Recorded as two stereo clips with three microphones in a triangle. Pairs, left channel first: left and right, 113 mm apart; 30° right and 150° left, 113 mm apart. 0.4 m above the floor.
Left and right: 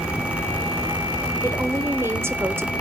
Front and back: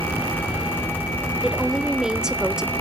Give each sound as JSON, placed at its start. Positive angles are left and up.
{"t": 1.4, "sound": "a woman speaking", "azimuth_deg": -130, "distance_m": 1.0}